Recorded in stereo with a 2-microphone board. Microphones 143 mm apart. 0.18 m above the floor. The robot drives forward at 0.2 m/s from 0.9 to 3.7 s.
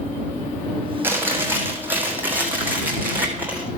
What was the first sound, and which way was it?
Chewing, 15° right (ahead or behind).